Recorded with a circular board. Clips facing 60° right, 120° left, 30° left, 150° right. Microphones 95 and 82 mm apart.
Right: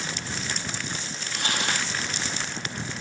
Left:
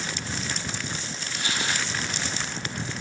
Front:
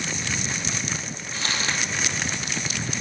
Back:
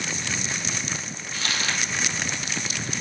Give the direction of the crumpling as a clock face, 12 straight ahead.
1 o'clock.